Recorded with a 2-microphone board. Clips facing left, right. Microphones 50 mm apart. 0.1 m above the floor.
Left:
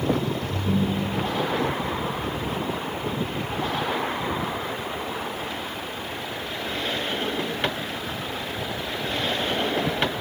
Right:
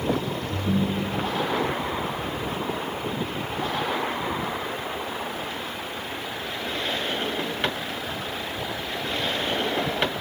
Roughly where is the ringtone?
Right.